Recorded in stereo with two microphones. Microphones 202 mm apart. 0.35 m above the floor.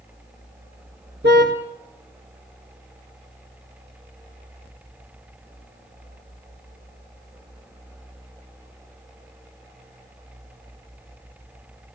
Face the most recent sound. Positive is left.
turn(degrees=-60)  # may be behind; listen again after turning